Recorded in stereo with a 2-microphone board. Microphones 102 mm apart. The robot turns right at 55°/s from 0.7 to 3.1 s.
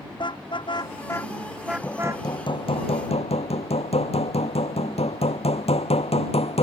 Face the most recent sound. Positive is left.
turn(degrees=85)